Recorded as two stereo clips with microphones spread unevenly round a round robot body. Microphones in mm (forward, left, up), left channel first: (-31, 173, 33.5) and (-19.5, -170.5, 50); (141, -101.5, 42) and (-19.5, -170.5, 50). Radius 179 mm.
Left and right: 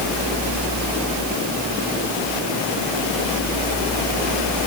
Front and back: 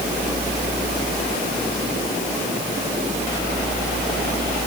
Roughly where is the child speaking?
I don't hear a child speaking.